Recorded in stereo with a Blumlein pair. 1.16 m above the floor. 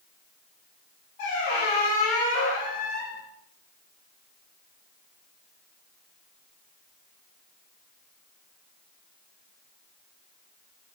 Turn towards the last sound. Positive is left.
turn(degrees=45)